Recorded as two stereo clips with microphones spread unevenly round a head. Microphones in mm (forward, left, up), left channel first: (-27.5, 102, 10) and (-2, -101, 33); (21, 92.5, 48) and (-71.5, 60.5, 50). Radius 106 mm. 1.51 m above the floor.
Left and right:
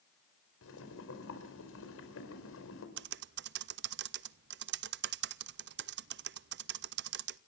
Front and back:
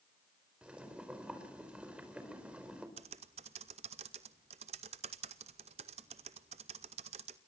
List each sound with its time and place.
0.6 s boiling: 120° left, 5 m
3.0 s typing on a keyboard: 120° right, 0.6 m